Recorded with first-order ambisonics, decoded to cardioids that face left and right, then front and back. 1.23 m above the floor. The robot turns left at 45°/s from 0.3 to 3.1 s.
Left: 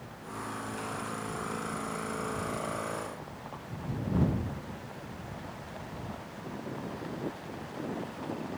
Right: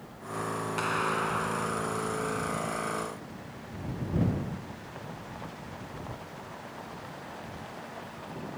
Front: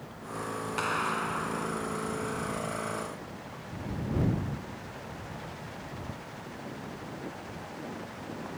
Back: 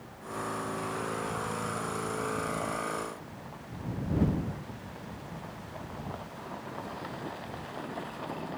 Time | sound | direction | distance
0.8 | a clap | 40° right | ?